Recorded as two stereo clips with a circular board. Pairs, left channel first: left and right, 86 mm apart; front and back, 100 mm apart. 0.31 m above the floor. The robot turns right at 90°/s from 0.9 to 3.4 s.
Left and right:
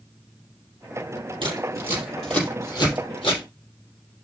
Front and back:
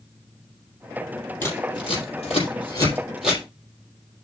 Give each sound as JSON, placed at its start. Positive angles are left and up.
{"t": 1.4, "sound": "scissors", "azimuth_deg": -70, "distance_m": 4.5}